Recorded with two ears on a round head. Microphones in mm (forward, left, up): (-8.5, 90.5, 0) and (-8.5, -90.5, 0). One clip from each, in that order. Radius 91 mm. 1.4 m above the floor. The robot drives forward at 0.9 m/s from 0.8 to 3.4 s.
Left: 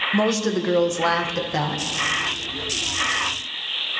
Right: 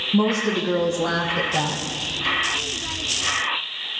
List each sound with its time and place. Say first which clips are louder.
0.1 s a woman speaking: even; 75° left (ahead or behind), 1.2 m; by 1.8 s 45° left (ahead or behind), 1.7 m